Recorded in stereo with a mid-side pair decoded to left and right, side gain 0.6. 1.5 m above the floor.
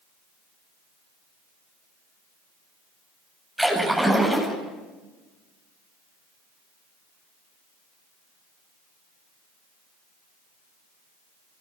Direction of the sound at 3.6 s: Straight ahead.